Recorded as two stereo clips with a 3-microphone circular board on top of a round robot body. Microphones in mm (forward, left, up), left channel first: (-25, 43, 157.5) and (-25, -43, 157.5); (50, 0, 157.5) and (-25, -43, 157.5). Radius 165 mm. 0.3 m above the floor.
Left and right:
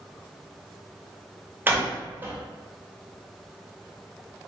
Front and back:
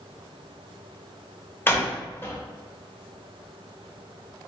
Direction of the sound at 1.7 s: 30° right.